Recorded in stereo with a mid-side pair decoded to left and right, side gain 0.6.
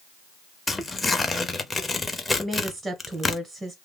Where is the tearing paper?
15° left, 0.8 m.